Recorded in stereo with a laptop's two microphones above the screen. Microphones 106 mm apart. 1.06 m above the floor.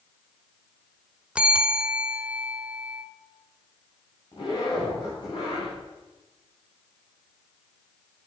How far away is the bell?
About 0.9 m.